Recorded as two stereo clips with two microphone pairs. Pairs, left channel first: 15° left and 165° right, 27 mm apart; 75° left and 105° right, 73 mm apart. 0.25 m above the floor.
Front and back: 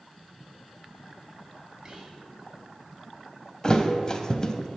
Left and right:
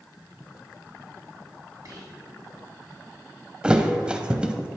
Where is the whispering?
110° right, 1.8 m.